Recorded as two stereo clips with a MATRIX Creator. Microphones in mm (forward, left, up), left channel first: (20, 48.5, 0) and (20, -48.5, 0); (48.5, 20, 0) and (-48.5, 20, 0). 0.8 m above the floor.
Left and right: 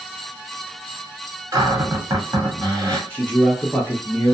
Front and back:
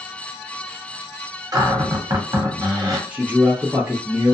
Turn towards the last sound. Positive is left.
turn(degrees=135)